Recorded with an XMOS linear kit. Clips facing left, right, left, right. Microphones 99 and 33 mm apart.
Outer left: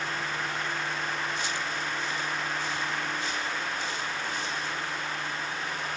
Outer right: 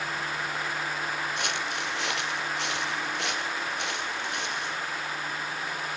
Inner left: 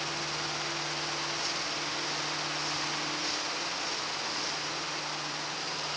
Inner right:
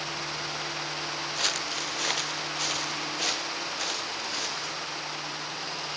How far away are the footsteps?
About 1.5 m.